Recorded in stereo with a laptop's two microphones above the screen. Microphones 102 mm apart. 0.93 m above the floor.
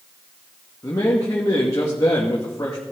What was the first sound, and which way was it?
A man speaking, 35° left (ahead or behind).